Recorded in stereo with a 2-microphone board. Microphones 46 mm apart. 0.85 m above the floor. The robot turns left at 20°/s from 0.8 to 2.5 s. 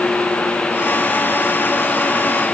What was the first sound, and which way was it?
Only background noise.